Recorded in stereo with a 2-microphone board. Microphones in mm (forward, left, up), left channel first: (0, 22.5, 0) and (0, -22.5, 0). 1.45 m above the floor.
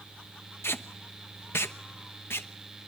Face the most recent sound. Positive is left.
turn(degrees=65)  # may be behind; listen again after turning